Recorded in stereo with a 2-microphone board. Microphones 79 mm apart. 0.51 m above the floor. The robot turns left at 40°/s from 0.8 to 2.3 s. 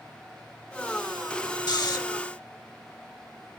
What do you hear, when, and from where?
1.7 s snoring: 60° left (ahead or behind), 0.9 m; by 2.0 s 50° left (ahead or behind), 0.9 m